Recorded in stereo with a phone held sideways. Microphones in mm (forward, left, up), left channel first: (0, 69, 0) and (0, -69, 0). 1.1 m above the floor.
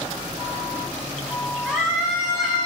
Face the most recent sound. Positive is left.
turn(degrees=25)  # may be behind; listen again after turning